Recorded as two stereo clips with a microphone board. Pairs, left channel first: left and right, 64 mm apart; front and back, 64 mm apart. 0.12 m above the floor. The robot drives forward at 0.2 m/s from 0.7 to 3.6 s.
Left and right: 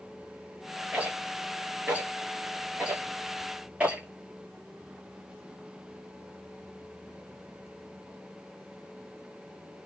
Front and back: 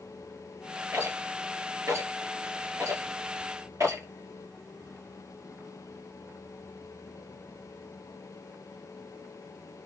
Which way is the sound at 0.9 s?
150° right.